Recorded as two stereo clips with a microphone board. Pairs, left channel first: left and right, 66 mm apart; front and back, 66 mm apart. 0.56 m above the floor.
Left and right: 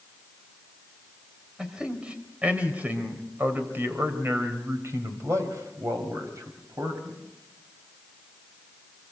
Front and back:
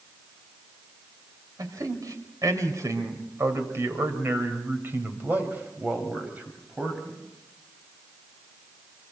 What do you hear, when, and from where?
1.6 s a man speaking: 165° right, 3.5 m; by 7.2 s 105° right, 4.5 m